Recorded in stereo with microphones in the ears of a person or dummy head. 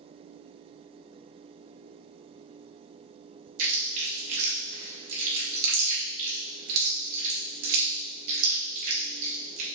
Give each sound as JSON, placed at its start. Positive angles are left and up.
{"t": 3.6, "sound": "chewing", "side_deg": -50, "distance_m": 2.0}